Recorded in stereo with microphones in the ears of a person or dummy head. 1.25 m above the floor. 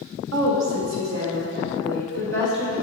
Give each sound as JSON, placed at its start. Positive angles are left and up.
{"t": 0.3, "sound": "a woman speaking", "side_deg": -75, "distance_m": 1.3}